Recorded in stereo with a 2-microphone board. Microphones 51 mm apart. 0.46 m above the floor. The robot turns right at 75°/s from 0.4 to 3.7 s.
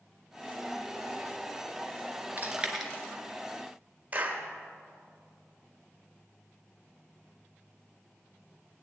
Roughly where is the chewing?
Right.